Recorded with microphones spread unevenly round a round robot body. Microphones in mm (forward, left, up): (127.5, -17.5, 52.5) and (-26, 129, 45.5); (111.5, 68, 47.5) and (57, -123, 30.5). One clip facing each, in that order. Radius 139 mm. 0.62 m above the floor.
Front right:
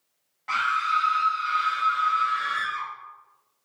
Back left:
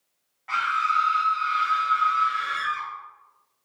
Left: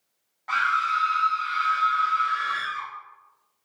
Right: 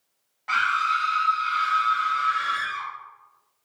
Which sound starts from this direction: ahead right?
A scream, at 0.5 s.